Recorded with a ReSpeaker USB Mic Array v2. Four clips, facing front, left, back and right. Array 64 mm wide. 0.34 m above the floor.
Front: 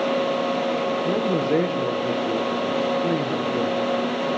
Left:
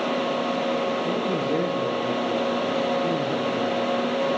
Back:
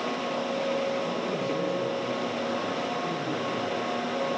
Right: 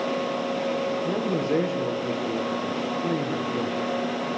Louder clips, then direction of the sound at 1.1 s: Left 1 dB, front 8 dB; 20° right.